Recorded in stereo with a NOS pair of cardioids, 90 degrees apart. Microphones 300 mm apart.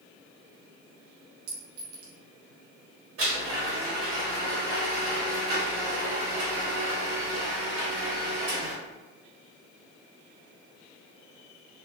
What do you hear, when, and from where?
1.5 s a clink: 70° right, 0.9 m
3.2 s a blender: 50° right, 1.4 m